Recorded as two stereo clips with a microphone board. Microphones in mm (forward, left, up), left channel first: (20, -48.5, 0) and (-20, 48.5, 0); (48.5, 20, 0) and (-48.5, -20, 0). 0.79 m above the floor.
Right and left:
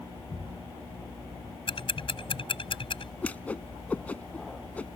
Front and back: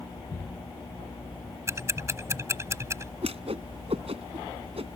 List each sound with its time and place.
1.7 s ticking: 95° right
3.2 s a whoosh: 145° right